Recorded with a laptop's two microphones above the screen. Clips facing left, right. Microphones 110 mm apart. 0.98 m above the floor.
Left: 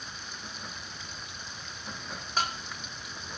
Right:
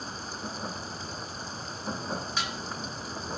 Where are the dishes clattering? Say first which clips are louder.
Left 2 dB; 45° left (ahead or behind).